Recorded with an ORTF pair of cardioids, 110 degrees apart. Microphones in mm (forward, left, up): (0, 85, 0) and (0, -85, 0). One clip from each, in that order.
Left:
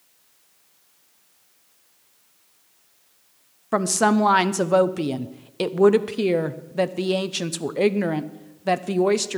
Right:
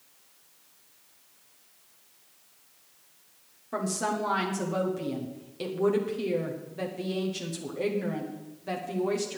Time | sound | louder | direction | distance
3.7 | a woman speaking | left 10 dB | 65° left | 0.8 m